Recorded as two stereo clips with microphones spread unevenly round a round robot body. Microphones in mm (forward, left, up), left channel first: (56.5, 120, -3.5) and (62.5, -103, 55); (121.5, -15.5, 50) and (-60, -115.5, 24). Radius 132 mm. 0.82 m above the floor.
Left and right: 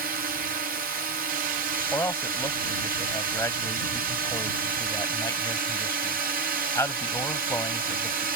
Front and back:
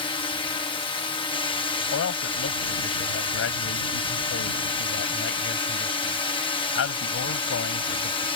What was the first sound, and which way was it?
A drone, 35° right.